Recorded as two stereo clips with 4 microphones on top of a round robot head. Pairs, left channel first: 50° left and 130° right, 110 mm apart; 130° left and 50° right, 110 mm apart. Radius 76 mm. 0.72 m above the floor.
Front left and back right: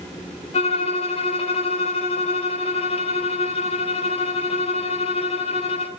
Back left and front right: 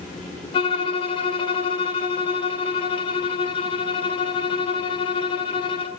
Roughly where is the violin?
Left.